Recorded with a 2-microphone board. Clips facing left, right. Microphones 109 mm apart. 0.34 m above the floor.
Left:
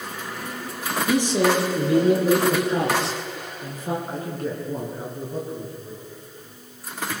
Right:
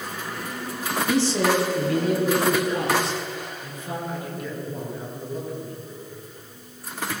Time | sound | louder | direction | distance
1.1 | a man speaking | left 1 dB | 15° left (ahead or behind) | 4 m
4.1 | a man speaking | left 3 dB | 35° left (ahead or behind) | 6.5 m